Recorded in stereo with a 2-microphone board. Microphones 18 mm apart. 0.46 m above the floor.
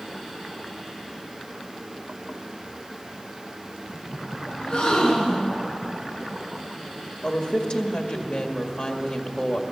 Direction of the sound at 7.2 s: 50° left (ahead or behind).